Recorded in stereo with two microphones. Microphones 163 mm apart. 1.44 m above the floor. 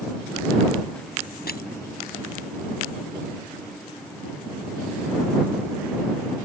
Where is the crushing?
75° left (ahead or behind).